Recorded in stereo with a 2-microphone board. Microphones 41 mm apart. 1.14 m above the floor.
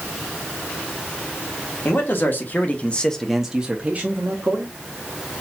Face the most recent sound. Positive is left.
turn(degrees=-50)  # may be behind; listen again after turning